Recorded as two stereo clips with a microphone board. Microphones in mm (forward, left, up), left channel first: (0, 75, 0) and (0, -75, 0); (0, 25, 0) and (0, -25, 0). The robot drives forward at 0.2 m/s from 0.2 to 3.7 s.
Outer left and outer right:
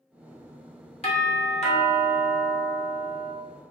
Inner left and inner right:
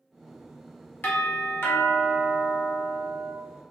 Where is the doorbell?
45° left (ahead or behind), 1.4 m; by 3.3 s 55° left (ahead or behind), 1.1 m.